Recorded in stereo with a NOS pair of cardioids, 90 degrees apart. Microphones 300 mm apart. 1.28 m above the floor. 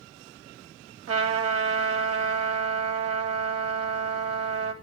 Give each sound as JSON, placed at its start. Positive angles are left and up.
{"t": 1.1, "sound": "a trumpet", "azimuth_deg": -50, "distance_m": 3.5}